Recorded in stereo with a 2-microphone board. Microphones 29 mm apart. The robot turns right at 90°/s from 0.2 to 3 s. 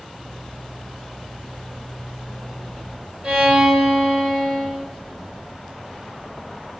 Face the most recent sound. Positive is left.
turn(degrees=-50)  # may be behind; listen again after turning